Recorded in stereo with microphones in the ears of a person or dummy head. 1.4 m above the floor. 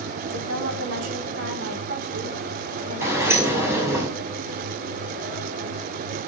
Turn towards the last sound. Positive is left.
turn(degrees=-15)  # may be behind; listen again after turning